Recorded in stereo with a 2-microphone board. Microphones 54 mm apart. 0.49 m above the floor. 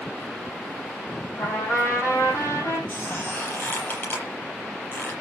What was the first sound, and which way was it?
A trumpet, 60° left (ahead or behind).